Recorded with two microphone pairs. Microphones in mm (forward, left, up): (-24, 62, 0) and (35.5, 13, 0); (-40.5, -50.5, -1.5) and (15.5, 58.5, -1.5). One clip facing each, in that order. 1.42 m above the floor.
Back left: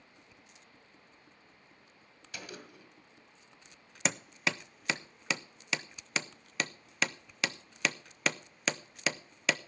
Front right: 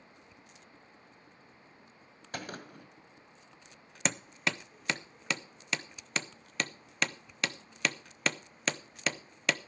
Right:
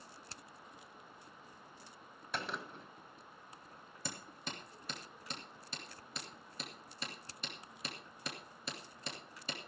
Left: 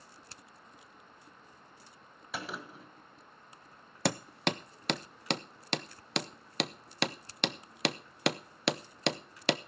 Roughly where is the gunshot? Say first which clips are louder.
Front right 5 dB, left 1 dB; ahead right.